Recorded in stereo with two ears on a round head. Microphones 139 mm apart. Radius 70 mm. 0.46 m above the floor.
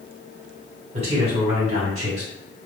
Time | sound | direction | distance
0.9 | a man speaking | 40° right (ahead or behind) | 1.8 m